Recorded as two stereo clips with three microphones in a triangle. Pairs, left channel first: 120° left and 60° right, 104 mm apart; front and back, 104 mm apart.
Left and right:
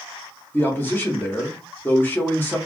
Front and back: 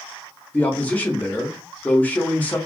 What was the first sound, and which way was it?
A man speaking, 65° left.